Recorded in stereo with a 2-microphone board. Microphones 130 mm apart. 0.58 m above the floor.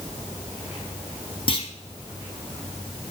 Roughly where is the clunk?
Left.